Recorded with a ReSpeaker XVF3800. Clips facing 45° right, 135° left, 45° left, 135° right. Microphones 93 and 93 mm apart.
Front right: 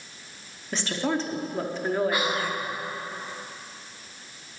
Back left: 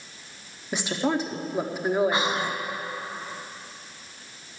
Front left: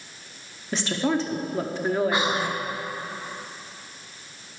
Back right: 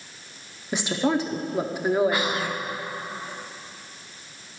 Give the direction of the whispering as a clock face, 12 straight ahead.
9 o'clock.